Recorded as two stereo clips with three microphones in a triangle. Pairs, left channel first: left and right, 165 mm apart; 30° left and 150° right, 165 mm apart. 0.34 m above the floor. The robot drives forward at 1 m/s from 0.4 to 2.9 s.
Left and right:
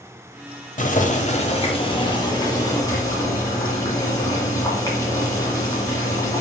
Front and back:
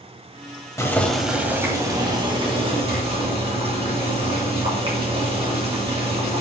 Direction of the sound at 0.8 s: 95° left.